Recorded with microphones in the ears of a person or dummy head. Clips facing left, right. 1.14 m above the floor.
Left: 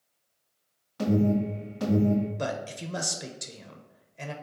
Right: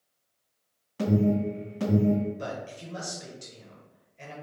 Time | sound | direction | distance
1.0 | an alarm | 45° right (ahead or behind) | 1.7 m
2.4 | a man speaking | 60° left (ahead or behind) | 0.6 m